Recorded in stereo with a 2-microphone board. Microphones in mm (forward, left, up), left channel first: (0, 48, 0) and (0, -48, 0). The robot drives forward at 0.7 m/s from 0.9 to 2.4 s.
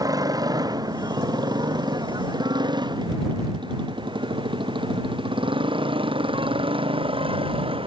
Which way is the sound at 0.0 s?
40° right (ahead or behind).